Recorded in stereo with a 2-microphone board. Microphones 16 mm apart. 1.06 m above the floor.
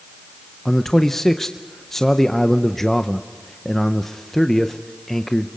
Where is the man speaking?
20° left (ahead or behind), 0.6 m.